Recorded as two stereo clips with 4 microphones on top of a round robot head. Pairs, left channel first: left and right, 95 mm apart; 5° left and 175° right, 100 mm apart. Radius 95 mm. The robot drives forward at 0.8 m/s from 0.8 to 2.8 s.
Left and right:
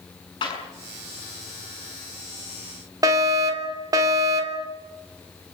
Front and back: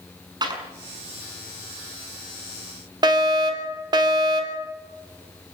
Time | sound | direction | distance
0.4 | a clap | 140° left | 6.5 m
3.0 | a fire alarm | 135° right | 3.5 m